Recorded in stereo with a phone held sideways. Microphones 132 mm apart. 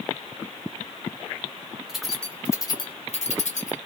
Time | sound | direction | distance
1.9 | keys jangling | 5° right (ahead or behind) | 1.0 m